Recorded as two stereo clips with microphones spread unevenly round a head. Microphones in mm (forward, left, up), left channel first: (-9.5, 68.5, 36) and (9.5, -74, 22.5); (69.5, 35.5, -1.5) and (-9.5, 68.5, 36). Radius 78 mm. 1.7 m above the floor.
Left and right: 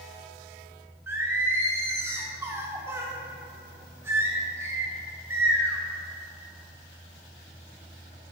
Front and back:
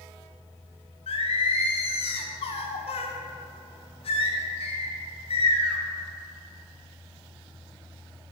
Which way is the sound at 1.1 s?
5° right.